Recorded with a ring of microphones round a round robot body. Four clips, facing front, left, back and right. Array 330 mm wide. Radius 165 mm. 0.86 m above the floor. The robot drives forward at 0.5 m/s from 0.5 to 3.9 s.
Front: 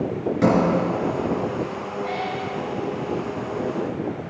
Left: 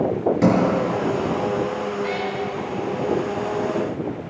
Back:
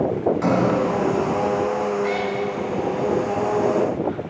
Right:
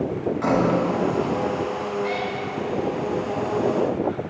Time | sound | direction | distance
0.4 | a sliding door | 50° left | 3 m
2.0 | a cat meowing | 165° left | 1.1 m